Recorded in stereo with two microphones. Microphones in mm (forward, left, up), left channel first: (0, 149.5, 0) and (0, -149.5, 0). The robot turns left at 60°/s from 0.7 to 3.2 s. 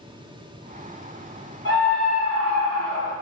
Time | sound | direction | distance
1.6 | a scream | 40° right | 1.7 m